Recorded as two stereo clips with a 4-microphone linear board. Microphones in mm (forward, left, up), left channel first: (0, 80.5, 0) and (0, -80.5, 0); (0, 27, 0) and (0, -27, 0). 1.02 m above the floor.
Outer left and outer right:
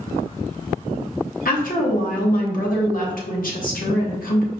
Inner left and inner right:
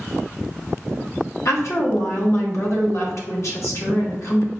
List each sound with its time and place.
1.4 s a woman speaking: 60° left (ahead or behind), 1.1 m